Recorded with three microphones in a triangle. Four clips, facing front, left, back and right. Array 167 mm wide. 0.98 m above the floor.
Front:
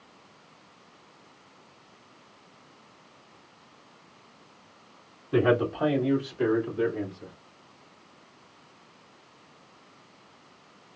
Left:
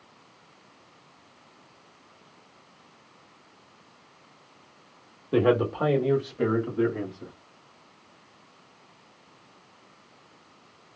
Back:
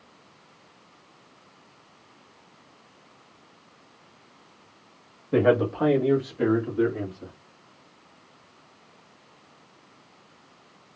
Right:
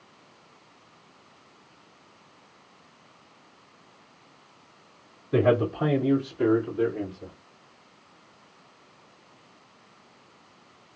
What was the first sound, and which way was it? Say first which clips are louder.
A man speaking: even, back 3 dB; 135° left.